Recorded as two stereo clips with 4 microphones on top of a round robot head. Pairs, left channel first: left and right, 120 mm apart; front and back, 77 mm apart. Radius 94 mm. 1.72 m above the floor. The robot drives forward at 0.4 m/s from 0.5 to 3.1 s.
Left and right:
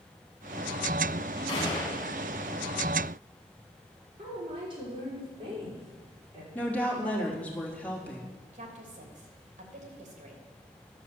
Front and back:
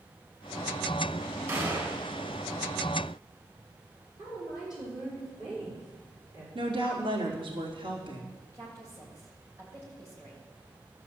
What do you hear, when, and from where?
1.5 s a gunshot: 135° left, 2 m; by 2.0 s 140° left, 2.5 m
4.2 s a woman speaking: 135° right, 5 m
6.5 s a woman speaking: 170° left, 3 m
8.5 s a woman speaking: 115° right, 3 m